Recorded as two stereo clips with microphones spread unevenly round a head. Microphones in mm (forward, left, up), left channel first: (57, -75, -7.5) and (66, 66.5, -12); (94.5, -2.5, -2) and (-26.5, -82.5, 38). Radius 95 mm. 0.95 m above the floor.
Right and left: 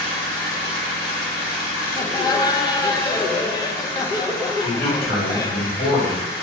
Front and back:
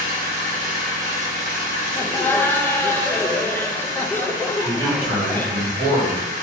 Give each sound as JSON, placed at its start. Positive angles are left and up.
{"t": 0.0, "sound": "an engine running", "azimuth_deg": -110, "distance_m": 1.3}
{"t": 1.9, "sound": "laughter", "azimuth_deg": -30, "distance_m": 0.5}
{"t": 4.6, "sound": "a man speaking", "azimuth_deg": -85, "distance_m": 1.8}